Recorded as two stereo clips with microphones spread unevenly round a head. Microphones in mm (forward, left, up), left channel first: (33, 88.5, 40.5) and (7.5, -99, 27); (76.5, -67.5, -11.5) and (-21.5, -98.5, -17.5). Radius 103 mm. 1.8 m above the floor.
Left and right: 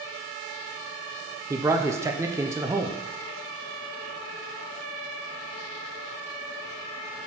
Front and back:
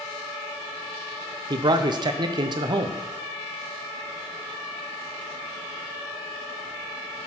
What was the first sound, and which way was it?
A man speaking, 175° right.